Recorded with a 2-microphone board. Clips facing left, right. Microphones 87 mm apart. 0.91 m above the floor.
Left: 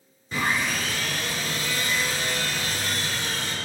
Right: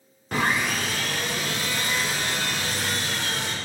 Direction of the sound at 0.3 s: 75° right (ahead or behind).